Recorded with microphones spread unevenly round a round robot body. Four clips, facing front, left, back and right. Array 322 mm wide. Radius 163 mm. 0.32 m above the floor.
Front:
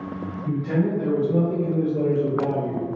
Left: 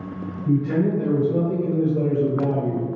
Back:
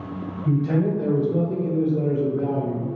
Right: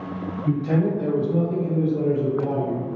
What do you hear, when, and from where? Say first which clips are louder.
0.5 s a man speaking: left 2 dB, back 2 dB; 145° right, 1.0 m; by 2.9 s 60° left, 1.5 m